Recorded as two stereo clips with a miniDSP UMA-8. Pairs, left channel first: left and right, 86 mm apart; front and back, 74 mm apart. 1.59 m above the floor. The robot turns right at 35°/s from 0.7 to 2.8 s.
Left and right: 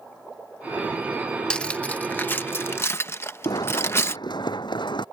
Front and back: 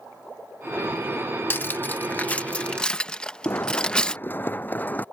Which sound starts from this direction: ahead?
Cutlery clinking, at 1.5 s.